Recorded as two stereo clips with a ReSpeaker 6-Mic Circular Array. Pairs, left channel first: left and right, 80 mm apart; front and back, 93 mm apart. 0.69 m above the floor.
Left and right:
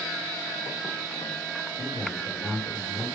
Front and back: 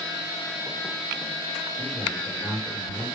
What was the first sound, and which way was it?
A man speaking, 160° right.